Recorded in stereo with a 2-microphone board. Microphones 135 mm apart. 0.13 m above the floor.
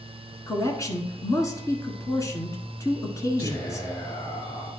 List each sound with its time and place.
0.5 s a man speaking: 25° left (ahead or behind), 1.5 m
3.4 s whispering: 35° left (ahead or behind), 4.5 m